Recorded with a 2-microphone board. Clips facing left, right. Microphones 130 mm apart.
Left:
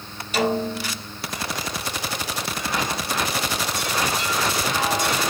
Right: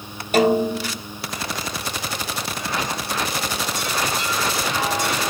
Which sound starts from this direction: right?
A snare drum, at 0.3 s.